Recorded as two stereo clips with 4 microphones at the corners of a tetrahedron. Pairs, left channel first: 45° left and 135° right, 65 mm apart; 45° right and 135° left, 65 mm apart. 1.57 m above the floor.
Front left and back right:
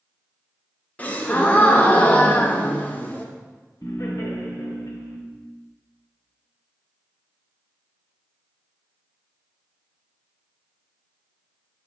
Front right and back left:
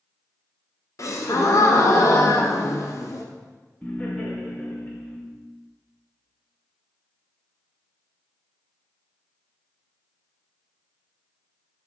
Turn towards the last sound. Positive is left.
turn(degrees=25)